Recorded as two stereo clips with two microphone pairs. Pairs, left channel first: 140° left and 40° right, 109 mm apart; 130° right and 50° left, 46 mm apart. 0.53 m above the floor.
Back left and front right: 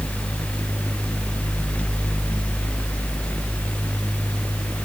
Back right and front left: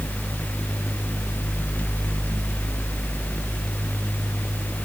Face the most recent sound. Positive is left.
No sound to turn to.